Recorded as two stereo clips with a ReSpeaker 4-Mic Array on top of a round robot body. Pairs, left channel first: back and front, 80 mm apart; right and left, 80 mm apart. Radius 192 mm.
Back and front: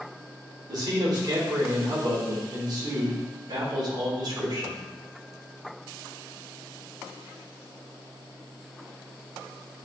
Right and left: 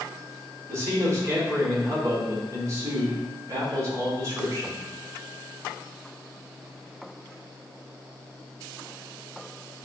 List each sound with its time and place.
0.7 s a man speaking: 40° left, 3 m